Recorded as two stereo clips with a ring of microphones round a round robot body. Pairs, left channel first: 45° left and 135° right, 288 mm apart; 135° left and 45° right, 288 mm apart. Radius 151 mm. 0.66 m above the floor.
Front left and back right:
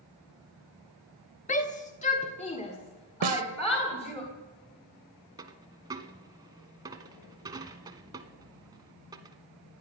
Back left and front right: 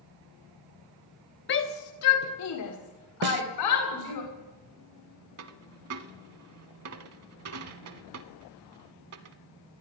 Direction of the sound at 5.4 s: 65° right.